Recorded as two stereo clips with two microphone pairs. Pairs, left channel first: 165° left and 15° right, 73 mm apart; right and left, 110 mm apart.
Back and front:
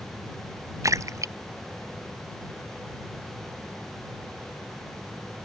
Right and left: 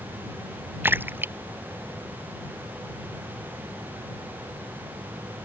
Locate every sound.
0.8 s a splash: 20° left